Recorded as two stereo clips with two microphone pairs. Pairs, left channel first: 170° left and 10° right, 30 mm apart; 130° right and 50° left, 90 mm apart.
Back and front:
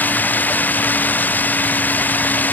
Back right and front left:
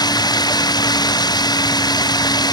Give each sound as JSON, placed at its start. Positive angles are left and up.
{"t": 0.0, "sound": "running water", "azimuth_deg": -170}